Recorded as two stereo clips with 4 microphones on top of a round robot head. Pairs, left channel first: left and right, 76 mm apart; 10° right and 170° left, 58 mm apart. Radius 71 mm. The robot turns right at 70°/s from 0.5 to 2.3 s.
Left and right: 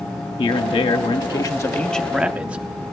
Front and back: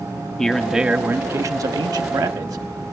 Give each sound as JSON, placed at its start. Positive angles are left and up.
{"t": 0.4, "sound": "a man speaking", "azimuth_deg": 70, "distance_m": 0.7}